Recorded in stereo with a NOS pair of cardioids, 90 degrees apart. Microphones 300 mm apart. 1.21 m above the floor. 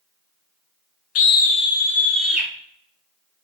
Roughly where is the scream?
Ahead left.